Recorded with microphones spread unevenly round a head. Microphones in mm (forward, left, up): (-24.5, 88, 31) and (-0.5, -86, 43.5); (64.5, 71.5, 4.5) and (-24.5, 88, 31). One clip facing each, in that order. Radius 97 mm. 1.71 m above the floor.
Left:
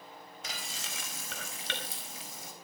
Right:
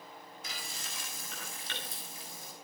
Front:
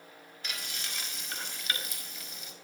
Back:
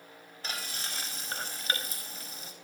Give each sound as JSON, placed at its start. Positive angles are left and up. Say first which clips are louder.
{"t": 0.4, "sound": "frying", "louder": "left 4 dB, back 3 dB", "azimuth_deg": 120, "distance_m": 5.0}